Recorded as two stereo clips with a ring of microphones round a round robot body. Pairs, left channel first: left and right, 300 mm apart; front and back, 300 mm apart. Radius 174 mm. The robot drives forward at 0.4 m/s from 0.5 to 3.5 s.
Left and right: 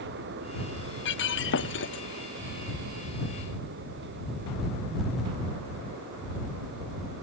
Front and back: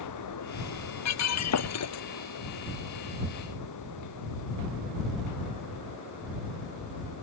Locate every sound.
1.1 s breaking glass: 35° left